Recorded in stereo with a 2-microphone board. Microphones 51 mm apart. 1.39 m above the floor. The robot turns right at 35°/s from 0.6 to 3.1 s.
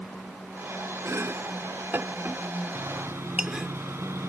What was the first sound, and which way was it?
Chopping, 75° right (ahead or behind).